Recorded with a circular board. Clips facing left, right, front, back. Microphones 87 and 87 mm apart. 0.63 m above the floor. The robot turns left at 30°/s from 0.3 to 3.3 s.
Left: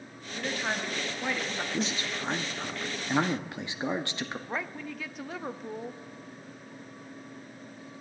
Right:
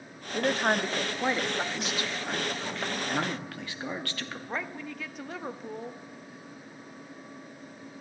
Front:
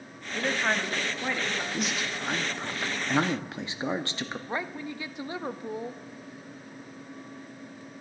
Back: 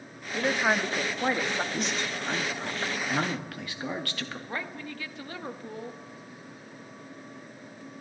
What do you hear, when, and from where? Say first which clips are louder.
0.3 s a woman speaking: right 6 dB, back 2 dB; 105° right, 0.9 m; by 1.6 s 145° right, 0.9 m
1.7 s a man speaking: left 1 dB, even; 90° left, 1.0 m; by 4.4 s 40° left, 1.0 m
4.5 s a woman speaking: even, front 4 dB; straight ahead, 0.6 m